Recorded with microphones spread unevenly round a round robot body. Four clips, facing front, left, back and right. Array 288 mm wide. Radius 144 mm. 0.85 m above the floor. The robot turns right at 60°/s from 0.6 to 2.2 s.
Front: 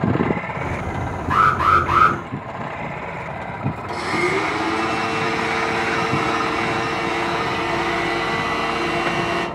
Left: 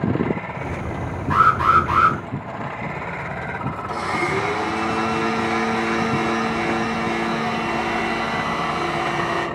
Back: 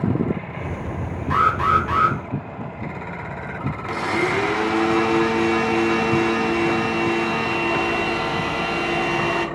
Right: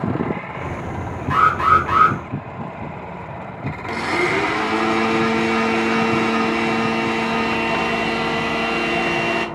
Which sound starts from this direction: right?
A blender, at 3.9 s.